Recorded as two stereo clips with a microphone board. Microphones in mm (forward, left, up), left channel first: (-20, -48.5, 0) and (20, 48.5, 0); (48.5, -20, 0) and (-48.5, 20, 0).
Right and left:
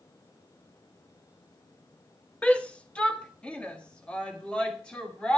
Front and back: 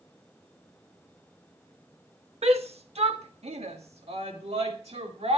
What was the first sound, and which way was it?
A shout, 170° left.